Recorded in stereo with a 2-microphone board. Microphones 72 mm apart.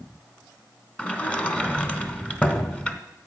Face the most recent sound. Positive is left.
turn(degrees=15)  # may be behind; listen again after turning